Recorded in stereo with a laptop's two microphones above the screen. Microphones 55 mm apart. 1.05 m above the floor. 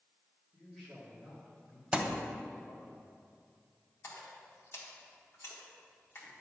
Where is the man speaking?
5° left (ahead or behind), 2 m; by 2.9 s 40° left (ahead or behind), 2.5 m.